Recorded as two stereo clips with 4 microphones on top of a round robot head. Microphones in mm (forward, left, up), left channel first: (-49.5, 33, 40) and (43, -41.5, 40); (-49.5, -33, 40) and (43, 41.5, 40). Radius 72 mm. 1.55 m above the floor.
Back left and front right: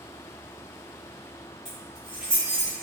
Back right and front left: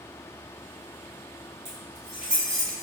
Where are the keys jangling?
60° left, 0.8 m; by 2.8 s 65° right, 0.9 m.